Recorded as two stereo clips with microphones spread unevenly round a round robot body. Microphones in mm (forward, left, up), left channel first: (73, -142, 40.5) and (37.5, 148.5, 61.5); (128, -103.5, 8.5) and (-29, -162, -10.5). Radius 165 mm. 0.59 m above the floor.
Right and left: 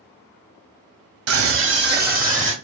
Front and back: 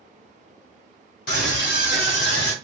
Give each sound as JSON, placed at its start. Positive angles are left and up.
{"t": 1.3, "sound": "a scream", "azimuth_deg": 60, "distance_m": 0.8}